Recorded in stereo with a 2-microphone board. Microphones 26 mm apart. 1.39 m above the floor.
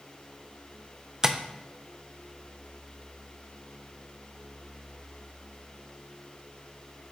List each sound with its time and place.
1.2 s tapping: 20° right (ahead or behind), 0.6 m